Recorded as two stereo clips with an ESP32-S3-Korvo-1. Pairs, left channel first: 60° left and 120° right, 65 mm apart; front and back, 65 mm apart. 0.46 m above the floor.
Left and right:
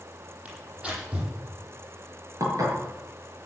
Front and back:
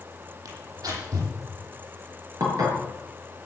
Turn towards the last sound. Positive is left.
turn(degrees=-155)